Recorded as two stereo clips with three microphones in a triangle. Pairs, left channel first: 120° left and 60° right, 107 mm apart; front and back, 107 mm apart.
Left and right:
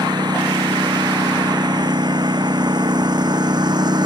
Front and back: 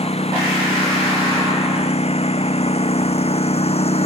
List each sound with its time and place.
0.0 s a lawn mower: 10° right